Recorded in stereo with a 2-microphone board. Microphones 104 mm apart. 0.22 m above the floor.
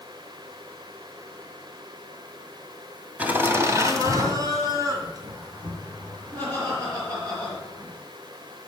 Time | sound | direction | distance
3.2 | laughter | 15° right (ahead or behind) | 1.7 m